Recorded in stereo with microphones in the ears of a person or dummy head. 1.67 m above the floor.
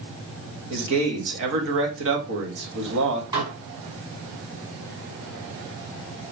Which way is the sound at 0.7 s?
65° right (ahead or behind).